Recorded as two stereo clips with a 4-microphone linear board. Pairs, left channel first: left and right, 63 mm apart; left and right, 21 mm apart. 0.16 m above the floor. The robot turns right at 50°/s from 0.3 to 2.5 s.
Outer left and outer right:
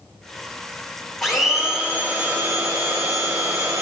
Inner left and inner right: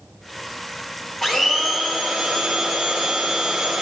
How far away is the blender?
About 3 m.